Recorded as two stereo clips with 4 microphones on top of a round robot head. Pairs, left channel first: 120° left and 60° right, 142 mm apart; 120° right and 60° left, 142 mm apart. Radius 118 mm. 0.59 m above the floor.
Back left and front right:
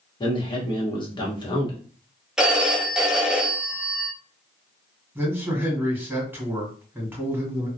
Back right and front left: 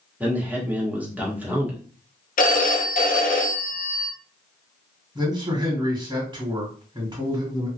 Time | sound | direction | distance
0.2 | a man speaking | 125° left | 1.2 m
2.4 | a phone ringing | 145° right | 0.7 m
5.2 | a man speaking | 15° left | 1.7 m